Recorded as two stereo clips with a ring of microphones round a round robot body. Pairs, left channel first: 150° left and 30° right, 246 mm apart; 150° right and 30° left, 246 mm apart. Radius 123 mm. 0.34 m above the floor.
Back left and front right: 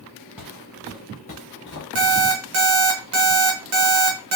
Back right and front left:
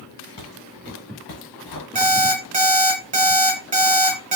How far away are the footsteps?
About 2.0 m.